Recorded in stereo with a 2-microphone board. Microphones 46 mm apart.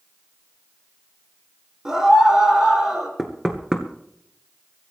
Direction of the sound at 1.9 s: 15° right (ahead or behind).